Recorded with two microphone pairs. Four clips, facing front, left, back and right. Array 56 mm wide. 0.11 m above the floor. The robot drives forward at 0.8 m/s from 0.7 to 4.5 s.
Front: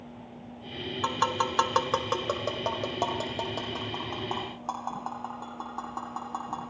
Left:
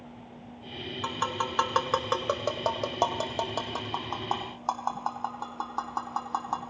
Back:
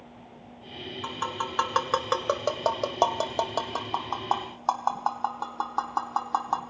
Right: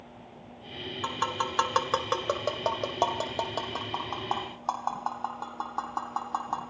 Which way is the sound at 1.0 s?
5° left.